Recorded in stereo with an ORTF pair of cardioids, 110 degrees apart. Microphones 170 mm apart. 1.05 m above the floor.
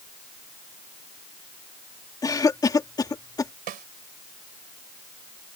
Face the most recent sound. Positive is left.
turn(degrees=-60)